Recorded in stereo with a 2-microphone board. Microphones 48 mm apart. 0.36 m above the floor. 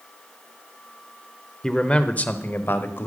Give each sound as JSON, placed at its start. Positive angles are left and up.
{"t": 1.6, "sound": "a man speaking", "side_deg": 10, "distance_m": 0.8}